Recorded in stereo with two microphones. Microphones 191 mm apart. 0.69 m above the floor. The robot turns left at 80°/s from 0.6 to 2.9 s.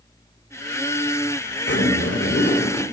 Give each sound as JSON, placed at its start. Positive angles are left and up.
{"t": 1.7, "sound": "a zipper", "azimuth_deg": 115, "distance_m": 0.9}